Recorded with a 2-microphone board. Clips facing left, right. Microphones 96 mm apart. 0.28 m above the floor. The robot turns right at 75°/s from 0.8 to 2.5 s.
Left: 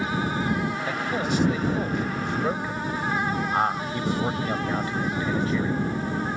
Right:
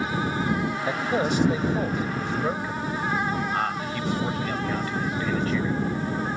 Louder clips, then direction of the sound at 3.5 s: Left 2 dB; 25° left (ahead or behind).